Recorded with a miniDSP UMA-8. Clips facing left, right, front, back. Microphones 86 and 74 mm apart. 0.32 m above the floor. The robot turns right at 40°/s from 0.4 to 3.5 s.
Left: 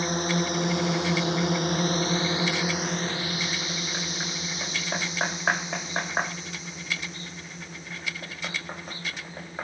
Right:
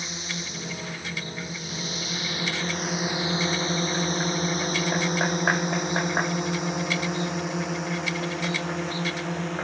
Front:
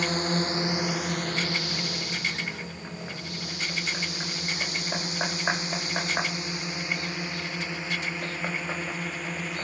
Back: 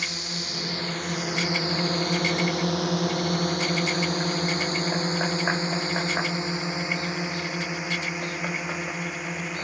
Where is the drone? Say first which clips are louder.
Left 10 dB, front 8 dB; 50° left; by 9.7 s 100° right.